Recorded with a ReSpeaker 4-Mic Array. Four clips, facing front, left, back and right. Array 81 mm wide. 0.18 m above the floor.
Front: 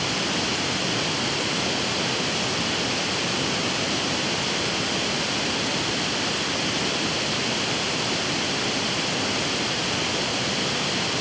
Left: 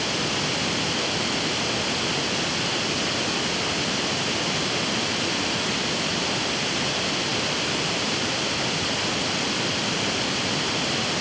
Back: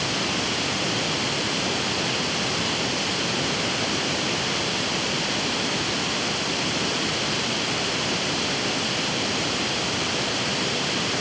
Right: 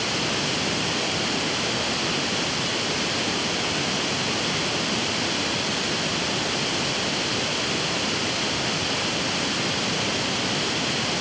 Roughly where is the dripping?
No dripping in this recording.